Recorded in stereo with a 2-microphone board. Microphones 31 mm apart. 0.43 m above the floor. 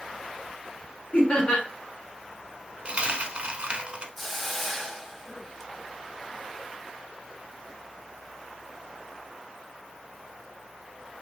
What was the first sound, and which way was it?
Laughter, 40° left (ahead or behind).